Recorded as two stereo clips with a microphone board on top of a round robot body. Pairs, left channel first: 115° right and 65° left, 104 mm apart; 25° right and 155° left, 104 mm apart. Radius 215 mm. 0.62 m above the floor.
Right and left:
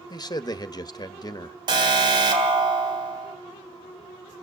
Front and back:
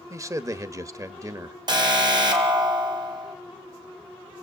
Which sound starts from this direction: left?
An alarm, at 1.7 s.